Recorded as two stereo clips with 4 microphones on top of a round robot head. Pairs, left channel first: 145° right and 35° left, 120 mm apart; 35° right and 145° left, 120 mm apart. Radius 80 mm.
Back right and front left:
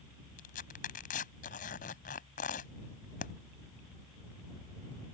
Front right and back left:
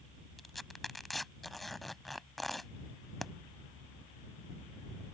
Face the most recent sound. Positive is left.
turn(degrees=-125)